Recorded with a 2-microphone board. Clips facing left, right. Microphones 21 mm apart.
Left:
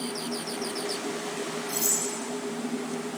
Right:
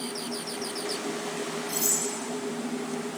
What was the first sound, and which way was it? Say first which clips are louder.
Cutlery clinking: even; 50° right (ahead or behind).